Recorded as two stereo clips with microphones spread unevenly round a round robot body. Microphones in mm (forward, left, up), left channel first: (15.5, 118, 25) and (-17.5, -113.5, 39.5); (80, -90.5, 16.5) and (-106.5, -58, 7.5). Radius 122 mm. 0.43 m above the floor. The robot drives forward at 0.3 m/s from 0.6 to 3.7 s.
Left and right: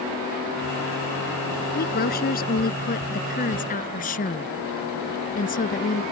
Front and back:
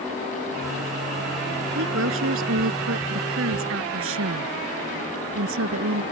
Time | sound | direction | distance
1.8 | a woman speaking | 135° left | ?